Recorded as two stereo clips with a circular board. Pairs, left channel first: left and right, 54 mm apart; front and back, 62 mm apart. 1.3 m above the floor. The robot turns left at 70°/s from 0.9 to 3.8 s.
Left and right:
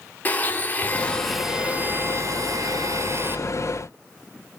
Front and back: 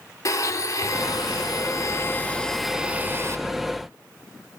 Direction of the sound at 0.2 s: 30° left.